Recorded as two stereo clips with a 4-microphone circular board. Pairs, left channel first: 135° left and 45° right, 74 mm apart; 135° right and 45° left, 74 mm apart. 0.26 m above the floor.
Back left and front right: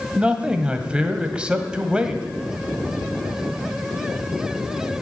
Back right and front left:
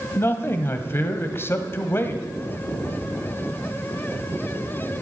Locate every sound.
0.1 s a man speaking: 110° right, 1.5 m